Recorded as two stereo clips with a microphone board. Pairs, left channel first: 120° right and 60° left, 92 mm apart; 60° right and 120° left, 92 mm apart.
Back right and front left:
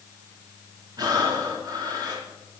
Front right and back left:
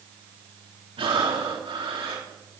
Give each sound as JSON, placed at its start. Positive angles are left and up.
{"t": 1.0, "sound": "breathing", "azimuth_deg": 105, "distance_m": 3.5}